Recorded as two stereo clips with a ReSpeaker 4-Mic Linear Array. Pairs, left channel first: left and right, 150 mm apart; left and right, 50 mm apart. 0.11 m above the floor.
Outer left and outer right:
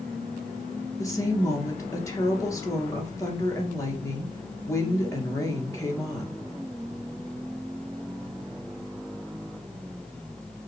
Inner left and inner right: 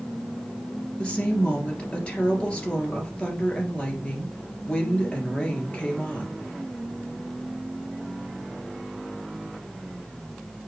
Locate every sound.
1.0 s a woman speaking: 20° left (ahead or behind), 2.5 m